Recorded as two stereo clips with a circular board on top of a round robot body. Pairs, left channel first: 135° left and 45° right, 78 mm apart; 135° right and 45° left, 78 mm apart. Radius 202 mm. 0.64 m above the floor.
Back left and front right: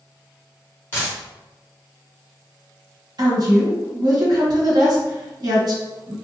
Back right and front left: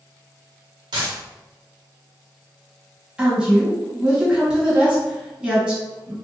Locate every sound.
0.9 s a dropped coin: 65° left, 0.8 m
3.2 s a woman speaking: 30° right, 1.6 m